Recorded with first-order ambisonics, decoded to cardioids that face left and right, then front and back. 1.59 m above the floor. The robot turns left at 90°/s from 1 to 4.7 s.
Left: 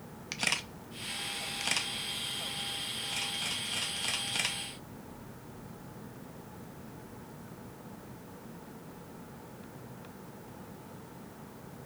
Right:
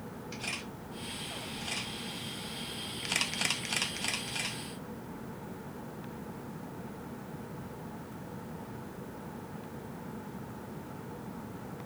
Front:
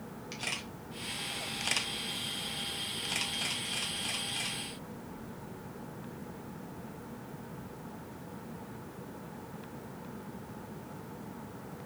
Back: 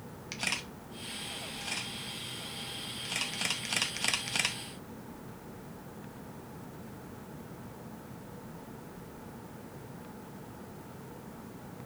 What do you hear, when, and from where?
0.3 s a camera shutter: 105° left, 0.6 m; by 4.6 s 145° left, 0.6 m